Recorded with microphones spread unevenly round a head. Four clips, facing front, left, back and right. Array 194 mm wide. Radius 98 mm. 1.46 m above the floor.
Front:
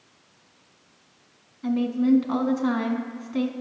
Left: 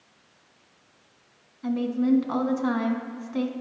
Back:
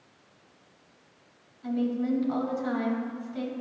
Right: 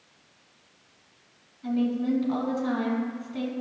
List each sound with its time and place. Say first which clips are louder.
1.6 s a woman speaking: left 2 dB, front 6 dB; 30° left, 1.6 m